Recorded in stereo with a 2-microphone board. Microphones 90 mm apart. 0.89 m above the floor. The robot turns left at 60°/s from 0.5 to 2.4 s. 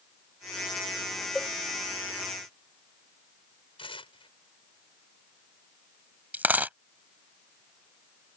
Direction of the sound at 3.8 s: 75° left (ahead or behind).